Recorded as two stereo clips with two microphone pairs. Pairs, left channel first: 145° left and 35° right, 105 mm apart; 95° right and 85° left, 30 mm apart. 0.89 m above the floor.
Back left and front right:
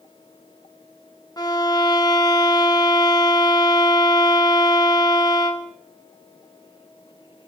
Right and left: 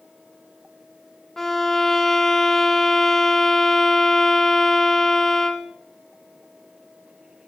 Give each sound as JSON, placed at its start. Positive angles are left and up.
{"t": 1.4, "sound": "a violin", "azimuth_deg": -175, "distance_m": 1.1}